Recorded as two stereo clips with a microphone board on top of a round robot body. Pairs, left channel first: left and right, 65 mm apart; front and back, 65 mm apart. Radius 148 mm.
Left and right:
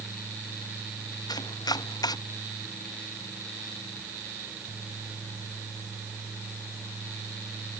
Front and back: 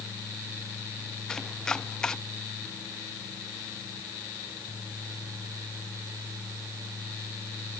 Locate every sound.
1.3 s chopping: 80° left